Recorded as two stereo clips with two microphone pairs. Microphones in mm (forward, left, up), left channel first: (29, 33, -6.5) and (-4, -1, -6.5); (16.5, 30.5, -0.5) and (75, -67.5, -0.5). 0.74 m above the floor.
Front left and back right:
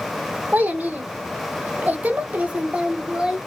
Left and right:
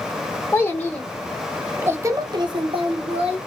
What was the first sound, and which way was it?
A child speaking, 175° right.